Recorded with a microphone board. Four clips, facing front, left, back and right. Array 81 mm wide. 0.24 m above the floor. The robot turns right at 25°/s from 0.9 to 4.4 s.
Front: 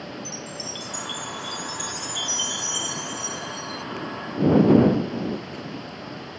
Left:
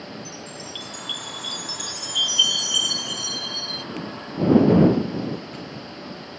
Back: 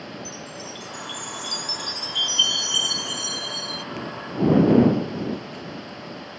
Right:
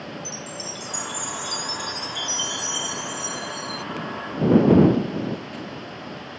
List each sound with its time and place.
0.2 s a chime: 85° left; by 3.9 s 160° left